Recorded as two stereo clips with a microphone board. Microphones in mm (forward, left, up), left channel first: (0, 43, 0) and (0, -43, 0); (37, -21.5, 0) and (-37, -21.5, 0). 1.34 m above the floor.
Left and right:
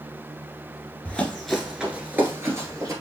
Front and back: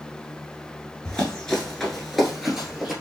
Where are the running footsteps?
50° left, 1.3 m; by 2.9 s 100° right, 1.6 m.